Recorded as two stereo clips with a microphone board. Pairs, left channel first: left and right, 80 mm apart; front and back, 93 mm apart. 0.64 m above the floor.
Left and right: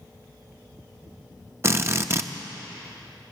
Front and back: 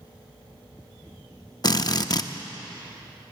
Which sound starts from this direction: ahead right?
A drill, at 1.6 s.